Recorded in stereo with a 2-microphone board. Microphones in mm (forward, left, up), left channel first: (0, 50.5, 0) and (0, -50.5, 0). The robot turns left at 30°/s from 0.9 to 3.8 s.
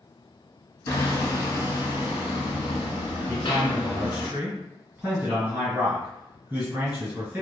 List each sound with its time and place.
0.9 s hammering: 145° left, 0.7 m; by 4.3 s 60° left, 0.7 m
3.3 s a man speaking: 10° right (ahead or behind), 1.9 m; by 7.4 s 15° right (ahead or behind), 1.9 m